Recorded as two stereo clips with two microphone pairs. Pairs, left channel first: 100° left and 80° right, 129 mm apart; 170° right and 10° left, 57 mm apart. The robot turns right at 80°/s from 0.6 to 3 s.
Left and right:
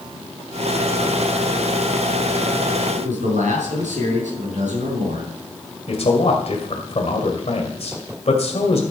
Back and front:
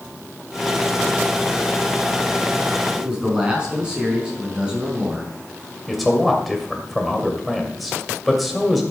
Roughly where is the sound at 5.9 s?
Left.